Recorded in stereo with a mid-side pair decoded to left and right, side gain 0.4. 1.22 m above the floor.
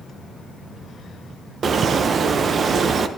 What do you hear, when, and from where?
1.6 s a bird: 50° right, 0.6 m